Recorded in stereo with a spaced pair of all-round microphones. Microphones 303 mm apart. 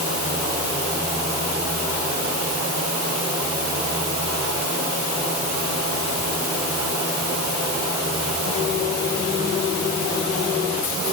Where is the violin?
No violin in this recording.